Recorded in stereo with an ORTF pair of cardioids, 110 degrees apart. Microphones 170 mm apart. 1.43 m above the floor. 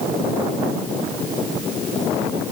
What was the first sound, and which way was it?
Only background noise.